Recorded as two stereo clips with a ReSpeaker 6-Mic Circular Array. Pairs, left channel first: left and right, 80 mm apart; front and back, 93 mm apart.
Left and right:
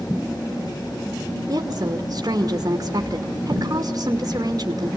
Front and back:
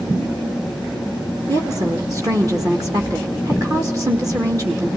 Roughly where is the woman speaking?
Behind right.